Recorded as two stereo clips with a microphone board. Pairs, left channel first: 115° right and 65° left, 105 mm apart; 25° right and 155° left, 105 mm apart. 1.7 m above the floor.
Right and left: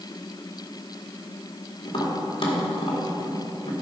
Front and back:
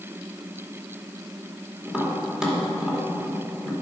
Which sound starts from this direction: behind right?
Tapping, at 1.9 s.